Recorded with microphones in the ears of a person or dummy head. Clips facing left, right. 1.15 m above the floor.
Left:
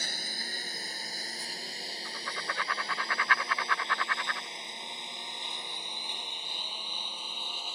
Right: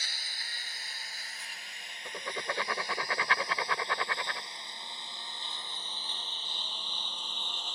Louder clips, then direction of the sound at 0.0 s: Left 8 dB; 35° left (ahead or behind).